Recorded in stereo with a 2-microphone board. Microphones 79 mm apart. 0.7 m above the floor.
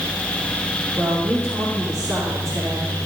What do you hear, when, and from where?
1.0 s a woman speaking: 45° right (ahead or behind), 2.5 m